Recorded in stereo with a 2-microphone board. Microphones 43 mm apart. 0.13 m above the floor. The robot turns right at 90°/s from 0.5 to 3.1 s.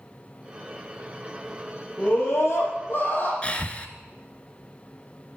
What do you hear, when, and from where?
2.0 s a scream: 30° left, 5 m; by 3.3 s 130° left, 5 m
3.4 s breathing: 30° left (ahead or behind), 1.0 m